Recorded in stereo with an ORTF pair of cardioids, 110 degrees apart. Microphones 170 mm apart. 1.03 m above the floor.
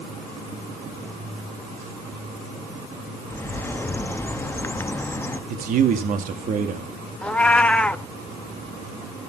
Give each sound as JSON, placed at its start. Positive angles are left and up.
{"t": 3.3, "sound": "a bird", "azimuth_deg": 15, "distance_m": 0.9}
{"t": 5.5, "sound": "a man speaking", "azimuth_deg": -50, "distance_m": 1.8}
{"t": 7.2, "sound": "a cat meowing", "azimuth_deg": 10, "distance_m": 0.7}